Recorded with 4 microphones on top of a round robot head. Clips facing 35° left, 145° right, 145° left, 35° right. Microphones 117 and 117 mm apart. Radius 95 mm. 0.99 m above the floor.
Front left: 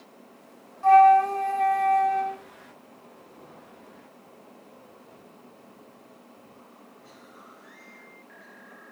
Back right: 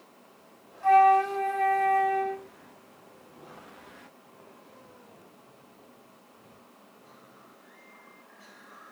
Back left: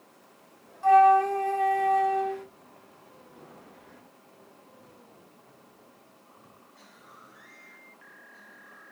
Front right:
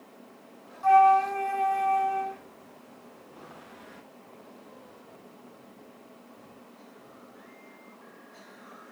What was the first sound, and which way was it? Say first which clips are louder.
A flute: front left 4 dB, back left 1 dB; 80° left.